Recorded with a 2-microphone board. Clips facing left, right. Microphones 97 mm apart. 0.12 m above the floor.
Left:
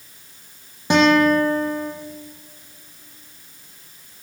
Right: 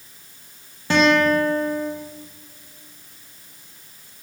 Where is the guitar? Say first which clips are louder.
Left 2 dB; 20° left (ahead or behind), 2.5 m.